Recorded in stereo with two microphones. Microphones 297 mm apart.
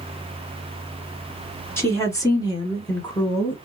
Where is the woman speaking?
10° left (ahead or behind), 1.8 m; by 3.6 s 15° left (ahead or behind), 1.5 m.